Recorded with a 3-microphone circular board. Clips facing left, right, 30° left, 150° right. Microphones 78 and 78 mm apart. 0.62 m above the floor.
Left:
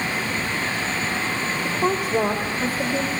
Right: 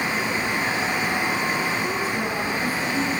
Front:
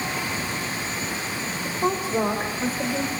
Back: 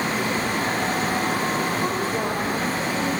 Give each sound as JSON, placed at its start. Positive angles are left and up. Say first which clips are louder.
{"t": 1.6, "sound": "a woman speaking", "louder": "left 2 dB, back 1 dB", "azimuth_deg": 105, "distance_m": 2.0}